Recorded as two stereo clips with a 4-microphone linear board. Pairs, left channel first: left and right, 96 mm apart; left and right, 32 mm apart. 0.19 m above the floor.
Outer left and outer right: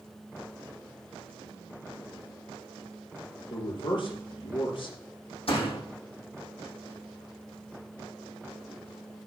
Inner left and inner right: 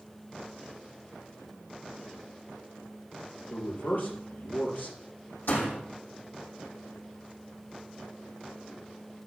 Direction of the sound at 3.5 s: 60° left (ahead or behind).